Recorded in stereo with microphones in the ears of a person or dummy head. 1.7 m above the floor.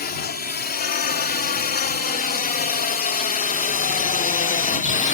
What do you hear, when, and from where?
0.0 s a drone: 40° left (ahead or behind); by 5.2 s 35° left (ahead or behind)